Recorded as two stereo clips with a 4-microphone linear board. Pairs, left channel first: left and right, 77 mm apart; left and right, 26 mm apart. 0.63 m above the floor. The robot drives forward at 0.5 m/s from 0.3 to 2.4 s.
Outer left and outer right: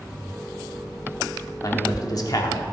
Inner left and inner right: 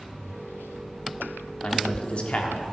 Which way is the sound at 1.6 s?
50° left (ahead or behind).